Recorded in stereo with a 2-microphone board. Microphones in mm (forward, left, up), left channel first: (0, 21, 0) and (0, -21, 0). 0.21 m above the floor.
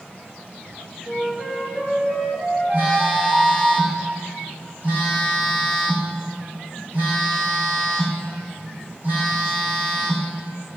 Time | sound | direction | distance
1.1 | a flute | 20° right (ahead or behind) | 3.5 m
2.7 | a phone buzzing | 50° right (ahead or behind) | 3 m